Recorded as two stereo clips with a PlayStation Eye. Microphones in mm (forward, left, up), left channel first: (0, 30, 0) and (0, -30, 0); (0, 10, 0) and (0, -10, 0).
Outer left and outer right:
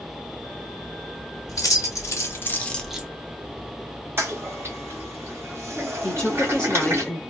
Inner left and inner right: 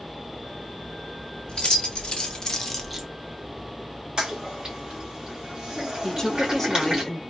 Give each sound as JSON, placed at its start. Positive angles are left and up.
{"t": 1.5, "sound": "keys jangling", "side_deg": 65, "distance_m": 1.4}
{"t": 4.2, "sound": "a toilet flushing", "side_deg": -40, "distance_m": 1.6}
{"t": 6.0, "sound": "a woman speaking", "side_deg": 10, "distance_m": 0.9}